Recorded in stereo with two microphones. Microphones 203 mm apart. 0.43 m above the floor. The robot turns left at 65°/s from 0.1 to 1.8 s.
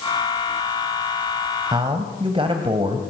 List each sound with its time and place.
1.7 s a man speaking: 20° right (ahead or behind), 2 m; by 3.0 s 25° right (ahead or behind), 2 m